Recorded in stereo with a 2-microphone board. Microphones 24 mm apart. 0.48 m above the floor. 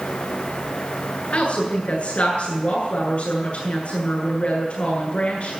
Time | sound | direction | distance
1.3 | a woman speaking | 60° left (ahead or behind) | 8 m